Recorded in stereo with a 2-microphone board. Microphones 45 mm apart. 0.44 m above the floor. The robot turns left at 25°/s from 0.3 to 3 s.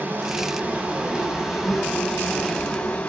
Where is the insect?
135° right, 4.5 m; by 3.1 s 155° left, 4.5 m.